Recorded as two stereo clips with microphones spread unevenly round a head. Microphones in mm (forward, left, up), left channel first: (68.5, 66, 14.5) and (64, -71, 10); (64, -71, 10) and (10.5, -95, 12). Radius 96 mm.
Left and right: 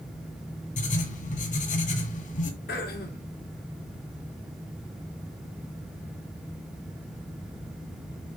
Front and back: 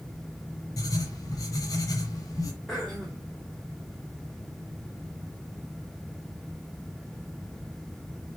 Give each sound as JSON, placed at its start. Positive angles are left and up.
{"t": 0.8, "sound": "writing", "azimuth_deg": 70, "distance_m": 1.7}
{"t": 2.7, "sound": "throat clearing", "azimuth_deg": 110, "distance_m": 2.0}